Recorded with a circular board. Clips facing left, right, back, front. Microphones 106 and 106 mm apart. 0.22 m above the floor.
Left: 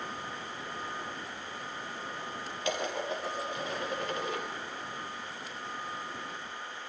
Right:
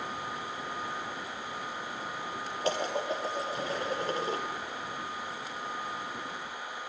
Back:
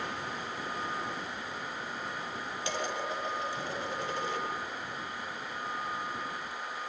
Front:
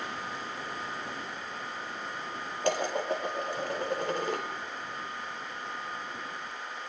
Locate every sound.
2.6 s dishes clattering: 35° right, 3.5 m